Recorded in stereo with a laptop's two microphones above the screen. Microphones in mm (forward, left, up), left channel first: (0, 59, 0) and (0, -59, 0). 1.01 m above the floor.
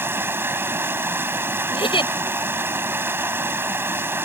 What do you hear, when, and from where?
0.0 s running water: 20° right (ahead or behind)
1.7 s a giggle: 45° left (ahead or behind)